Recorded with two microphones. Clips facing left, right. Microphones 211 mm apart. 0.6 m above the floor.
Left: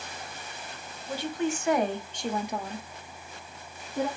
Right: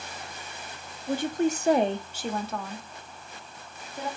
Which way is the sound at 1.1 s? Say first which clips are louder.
Right 4 dB; 55° right (ahead or behind).